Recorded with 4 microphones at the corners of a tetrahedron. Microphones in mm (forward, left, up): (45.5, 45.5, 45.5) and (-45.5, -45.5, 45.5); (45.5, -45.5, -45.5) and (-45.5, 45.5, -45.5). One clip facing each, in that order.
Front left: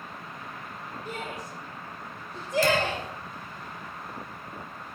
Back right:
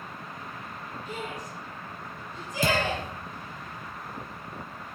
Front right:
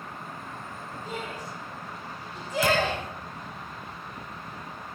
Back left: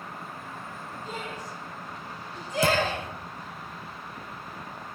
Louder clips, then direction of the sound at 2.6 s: Back right 2 dB, even; 170° right.